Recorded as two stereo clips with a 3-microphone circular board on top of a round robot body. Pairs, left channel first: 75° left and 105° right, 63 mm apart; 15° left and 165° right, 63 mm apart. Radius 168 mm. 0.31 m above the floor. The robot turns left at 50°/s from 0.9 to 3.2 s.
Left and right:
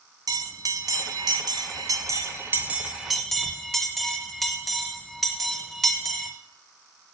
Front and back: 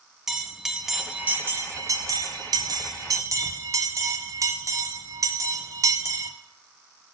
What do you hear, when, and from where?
0.3 s a bell: 80° right, 1.7 m; by 6.3 s 165° left, 1.7 m